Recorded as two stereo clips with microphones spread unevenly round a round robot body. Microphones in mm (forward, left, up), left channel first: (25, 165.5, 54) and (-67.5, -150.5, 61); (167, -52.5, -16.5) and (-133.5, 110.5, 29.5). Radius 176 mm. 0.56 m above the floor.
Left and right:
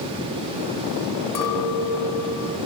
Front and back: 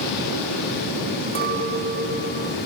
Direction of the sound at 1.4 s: 85° left.